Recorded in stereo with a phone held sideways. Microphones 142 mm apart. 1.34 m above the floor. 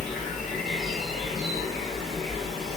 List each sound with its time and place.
0.0 s an insect: centre (ahead or behind), 0.9 m